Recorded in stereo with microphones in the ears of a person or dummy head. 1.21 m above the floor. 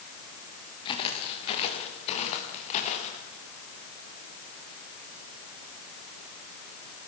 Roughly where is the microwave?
I don't hear a microwave.